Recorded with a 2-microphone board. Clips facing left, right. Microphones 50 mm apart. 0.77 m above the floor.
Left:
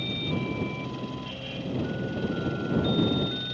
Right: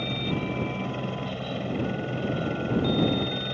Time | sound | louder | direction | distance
0.0 | a helicopter | right 1 dB | 40° right (ahead or behind) | ?